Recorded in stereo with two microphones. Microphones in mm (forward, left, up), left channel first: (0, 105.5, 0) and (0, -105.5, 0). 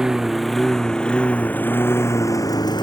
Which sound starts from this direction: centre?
A lawn mower, at 0.0 s.